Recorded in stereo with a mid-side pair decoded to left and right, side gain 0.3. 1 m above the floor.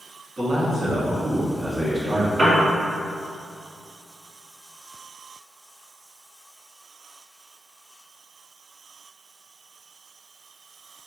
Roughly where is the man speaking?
Ahead right.